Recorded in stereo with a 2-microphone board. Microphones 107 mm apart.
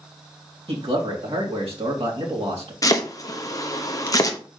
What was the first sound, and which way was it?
A man speaking, 80° right.